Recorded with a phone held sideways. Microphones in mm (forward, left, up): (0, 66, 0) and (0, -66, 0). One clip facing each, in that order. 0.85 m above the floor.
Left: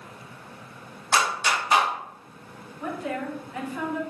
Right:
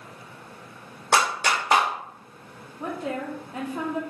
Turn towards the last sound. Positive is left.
turn(degrees=-30)  # may be behind; listen again after turning